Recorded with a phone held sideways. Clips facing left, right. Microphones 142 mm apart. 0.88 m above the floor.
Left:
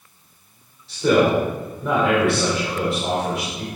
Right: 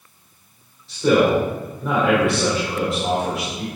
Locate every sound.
0.9 s a man speaking: centre (ahead or behind), 4 m